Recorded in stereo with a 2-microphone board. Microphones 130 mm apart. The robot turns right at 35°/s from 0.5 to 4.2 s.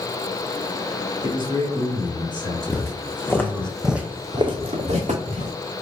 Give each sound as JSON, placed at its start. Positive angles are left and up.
{"t": 1.2, "sound": "a man speaking", "azimuth_deg": -110, "distance_m": 1.8}
{"t": 2.7, "sound": "footsteps", "side_deg": 15, "distance_m": 1.1}